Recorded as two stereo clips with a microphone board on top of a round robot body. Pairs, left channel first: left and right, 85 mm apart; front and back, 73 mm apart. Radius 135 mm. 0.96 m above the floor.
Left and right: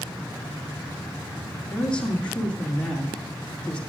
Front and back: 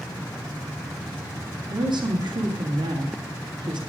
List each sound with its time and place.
1.7 s a woman speaking: 170° left, 2.5 m